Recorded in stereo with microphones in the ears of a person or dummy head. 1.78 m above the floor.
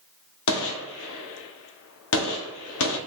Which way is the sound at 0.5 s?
70° left (ahead or behind).